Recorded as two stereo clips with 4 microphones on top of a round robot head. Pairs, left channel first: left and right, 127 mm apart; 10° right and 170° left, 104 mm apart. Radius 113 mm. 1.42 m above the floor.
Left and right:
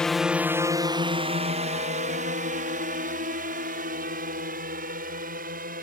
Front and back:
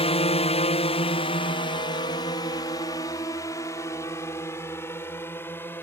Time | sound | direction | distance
0.0 | a drone | 5° left | ?